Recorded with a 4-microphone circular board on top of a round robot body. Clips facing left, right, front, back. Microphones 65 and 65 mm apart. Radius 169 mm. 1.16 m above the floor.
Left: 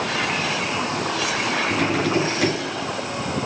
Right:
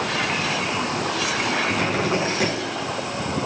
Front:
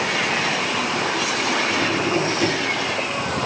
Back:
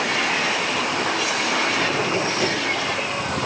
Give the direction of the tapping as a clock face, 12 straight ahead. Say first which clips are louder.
Left 1 dB, front 1 dB; 4 o'clock.